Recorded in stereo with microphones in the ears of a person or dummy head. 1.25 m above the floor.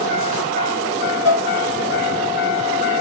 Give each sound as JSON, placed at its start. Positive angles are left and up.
{"t": 1.2, "sound": "dishes clattering", "side_deg": 70, "distance_m": 1.1}